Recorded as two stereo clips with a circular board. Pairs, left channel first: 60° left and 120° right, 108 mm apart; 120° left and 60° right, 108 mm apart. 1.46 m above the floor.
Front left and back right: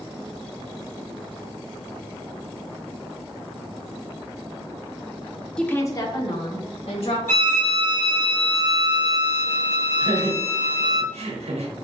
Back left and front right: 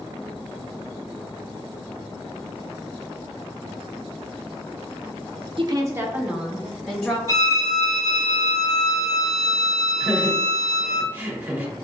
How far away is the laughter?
About 1.2 m.